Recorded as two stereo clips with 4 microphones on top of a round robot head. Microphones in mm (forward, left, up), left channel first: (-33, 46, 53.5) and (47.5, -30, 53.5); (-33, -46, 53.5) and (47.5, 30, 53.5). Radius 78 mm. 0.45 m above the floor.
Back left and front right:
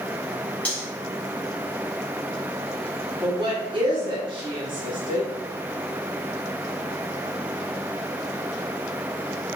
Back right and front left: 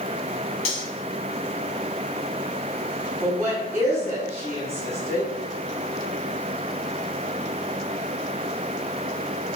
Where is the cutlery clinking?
145° right, 1.2 m.